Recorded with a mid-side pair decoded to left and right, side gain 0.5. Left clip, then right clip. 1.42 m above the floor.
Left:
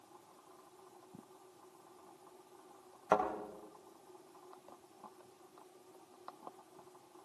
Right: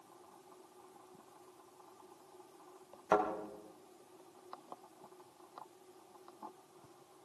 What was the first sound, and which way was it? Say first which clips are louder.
A thud: even; 10° left.